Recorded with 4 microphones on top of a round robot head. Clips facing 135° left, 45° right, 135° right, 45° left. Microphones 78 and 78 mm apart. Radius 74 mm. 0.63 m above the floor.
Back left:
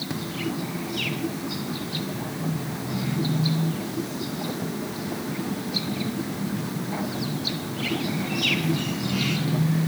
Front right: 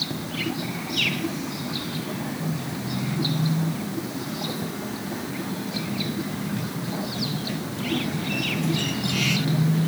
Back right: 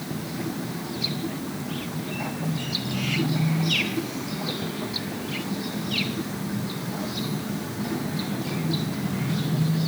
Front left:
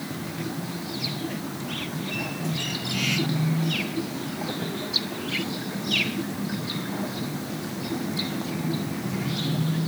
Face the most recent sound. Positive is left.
No sound to turn to.